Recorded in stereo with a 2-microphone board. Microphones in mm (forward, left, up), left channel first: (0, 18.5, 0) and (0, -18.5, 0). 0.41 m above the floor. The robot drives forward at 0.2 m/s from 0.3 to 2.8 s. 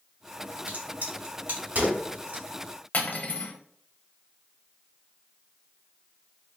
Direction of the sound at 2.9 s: 45° left (ahead or behind).